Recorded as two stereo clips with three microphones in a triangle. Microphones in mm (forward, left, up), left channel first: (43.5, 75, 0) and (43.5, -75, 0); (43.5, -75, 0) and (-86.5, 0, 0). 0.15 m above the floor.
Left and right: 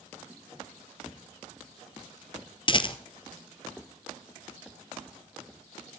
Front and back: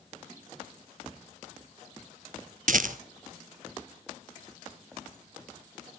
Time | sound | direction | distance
2.7 | a rattle | 140° left | 0.9 m